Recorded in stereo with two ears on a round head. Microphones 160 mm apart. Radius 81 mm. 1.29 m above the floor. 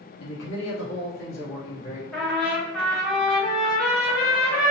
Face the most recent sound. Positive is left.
turn(degrees=10)  # may be behind; listen again after turning